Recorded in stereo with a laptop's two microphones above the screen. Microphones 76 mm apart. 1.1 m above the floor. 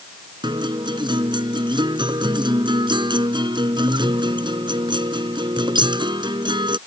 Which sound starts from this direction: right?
A guitar, at 0.4 s.